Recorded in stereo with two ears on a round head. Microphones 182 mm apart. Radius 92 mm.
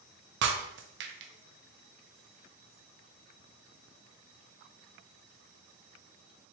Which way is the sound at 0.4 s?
55° right (ahead or behind).